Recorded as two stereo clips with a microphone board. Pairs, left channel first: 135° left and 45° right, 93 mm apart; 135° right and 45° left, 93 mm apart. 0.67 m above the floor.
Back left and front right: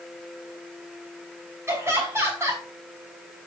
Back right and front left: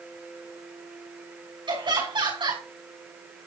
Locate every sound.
1.7 s laughter: 15° left, 6.5 m